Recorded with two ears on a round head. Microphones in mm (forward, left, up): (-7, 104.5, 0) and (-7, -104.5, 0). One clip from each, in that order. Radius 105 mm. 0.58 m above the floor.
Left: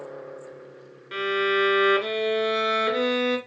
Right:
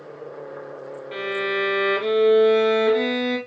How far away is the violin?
About 1.2 m.